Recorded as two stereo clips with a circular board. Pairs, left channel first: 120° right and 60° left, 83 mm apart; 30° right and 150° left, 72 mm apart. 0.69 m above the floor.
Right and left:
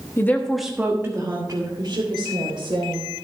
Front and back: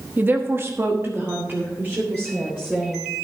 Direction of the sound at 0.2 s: 160° right.